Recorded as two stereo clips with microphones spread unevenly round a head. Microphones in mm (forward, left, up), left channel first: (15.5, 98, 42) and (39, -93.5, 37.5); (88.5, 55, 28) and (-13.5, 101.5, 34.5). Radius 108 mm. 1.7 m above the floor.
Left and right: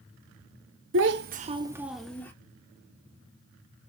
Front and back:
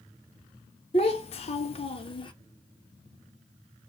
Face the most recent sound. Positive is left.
turn(degrees=20)